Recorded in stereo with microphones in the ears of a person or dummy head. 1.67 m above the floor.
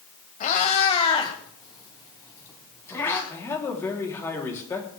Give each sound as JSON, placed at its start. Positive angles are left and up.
{"t": 0.4, "sound": "a cat meowing", "side_deg": 35, "distance_m": 2.0}
{"t": 3.3, "sound": "a man speaking", "side_deg": 15, "distance_m": 3.0}